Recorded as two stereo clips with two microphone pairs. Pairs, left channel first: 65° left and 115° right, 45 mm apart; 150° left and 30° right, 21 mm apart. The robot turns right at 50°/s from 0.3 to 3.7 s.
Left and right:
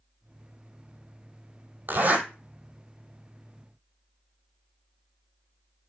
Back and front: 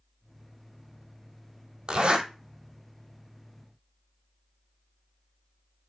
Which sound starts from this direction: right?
A zipper, at 1.9 s.